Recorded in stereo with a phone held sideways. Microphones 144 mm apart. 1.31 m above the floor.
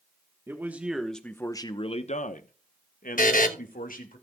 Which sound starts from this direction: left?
A buzzer, at 3.2 s.